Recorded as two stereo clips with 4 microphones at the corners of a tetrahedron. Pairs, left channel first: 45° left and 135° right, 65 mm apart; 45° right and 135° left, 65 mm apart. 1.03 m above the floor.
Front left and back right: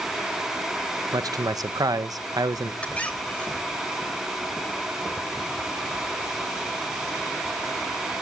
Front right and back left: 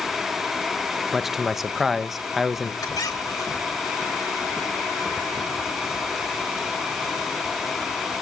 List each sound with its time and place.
1.1 s a man speaking: 140° right, 0.6 m
2.8 s a squeak: 25° right, 2.5 m